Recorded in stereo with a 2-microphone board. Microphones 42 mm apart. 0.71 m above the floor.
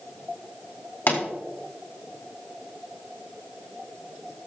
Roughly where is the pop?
Left.